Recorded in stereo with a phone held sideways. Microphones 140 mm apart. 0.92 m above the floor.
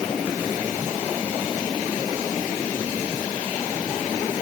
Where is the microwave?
I don't hear a microwave.